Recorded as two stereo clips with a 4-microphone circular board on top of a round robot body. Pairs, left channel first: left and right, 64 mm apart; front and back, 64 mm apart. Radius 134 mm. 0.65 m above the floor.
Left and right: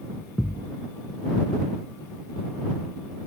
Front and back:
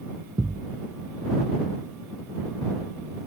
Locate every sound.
0.4 s a thud: 155° left